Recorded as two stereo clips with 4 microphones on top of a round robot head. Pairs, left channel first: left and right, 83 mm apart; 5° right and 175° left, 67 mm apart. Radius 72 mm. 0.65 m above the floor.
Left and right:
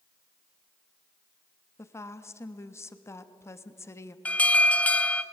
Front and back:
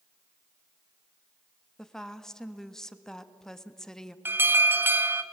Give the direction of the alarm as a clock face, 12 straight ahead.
7 o'clock.